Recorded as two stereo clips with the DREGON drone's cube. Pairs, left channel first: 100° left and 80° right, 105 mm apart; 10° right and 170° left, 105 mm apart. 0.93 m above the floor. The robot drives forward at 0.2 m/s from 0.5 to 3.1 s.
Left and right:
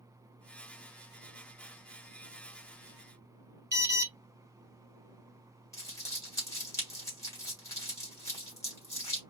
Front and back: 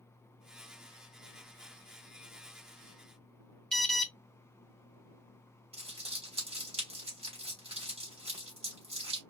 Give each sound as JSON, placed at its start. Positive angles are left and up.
{"t": 3.7, "sound": "an alarm", "azimuth_deg": -90, "distance_m": 0.8}
{"t": 5.7, "sound": "crumpling", "azimuth_deg": 160, "distance_m": 3.0}